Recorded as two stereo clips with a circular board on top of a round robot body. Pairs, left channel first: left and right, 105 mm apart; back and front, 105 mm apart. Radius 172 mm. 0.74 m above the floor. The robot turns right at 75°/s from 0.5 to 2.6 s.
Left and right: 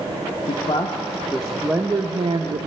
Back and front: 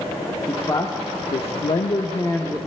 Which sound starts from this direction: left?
A man speaking, at 0.5 s.